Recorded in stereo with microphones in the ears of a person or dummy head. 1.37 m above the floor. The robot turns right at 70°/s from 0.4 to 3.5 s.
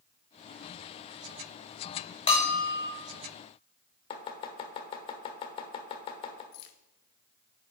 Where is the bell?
150° left, 1.1 m; by 2.9 s 165° right, 1.1 m.